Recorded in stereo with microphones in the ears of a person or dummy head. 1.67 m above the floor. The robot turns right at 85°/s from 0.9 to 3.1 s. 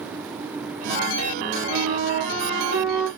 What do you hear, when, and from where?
1.7 s a flute: 110° right, 2 m; by 3.1 s 10° left, 2 m